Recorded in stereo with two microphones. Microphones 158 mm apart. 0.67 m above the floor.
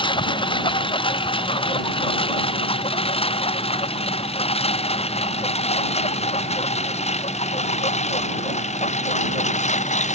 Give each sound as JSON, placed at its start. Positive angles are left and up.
{"t": 0.0, "sound": "a lawn mower", "side_deg": 30}